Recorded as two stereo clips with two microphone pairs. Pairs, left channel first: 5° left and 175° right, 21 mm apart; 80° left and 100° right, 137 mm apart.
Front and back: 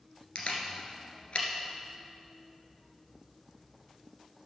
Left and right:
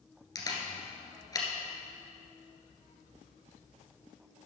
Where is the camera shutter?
20° left, 1.8 m.